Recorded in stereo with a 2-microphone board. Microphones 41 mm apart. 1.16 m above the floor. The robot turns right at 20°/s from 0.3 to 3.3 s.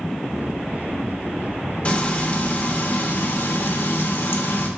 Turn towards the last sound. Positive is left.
turn(degrees=60)  # may be behind; listen again after turning